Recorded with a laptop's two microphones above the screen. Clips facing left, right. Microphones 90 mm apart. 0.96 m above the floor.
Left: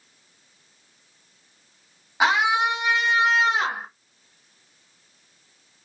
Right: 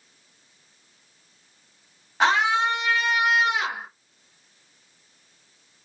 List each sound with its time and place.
2.2 s a scream: 5° left (ahead or behind), 1.3 m; by 3.9 s 40° left (ahead or behind), 0.9 m